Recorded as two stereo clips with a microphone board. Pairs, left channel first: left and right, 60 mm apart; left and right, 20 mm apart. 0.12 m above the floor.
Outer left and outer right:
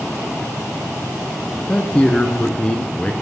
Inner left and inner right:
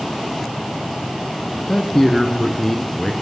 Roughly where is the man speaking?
Centre.